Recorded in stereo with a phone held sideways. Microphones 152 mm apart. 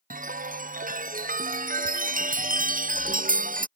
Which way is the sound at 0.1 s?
60° right (ahead or behind).